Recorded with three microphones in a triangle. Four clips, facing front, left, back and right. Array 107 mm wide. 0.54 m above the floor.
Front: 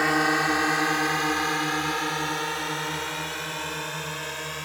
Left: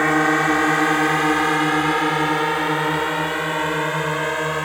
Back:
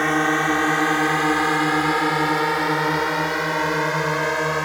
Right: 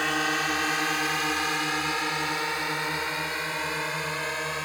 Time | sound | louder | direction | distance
0.0 | a drone | left 10 dB, back 3 dB | 105° left | ?